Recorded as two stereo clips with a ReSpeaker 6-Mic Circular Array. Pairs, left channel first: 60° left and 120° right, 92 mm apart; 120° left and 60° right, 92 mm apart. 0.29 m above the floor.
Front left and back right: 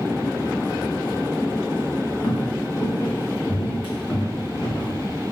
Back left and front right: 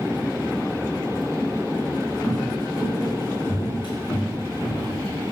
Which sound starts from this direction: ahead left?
Footsteps, at 2.2 s.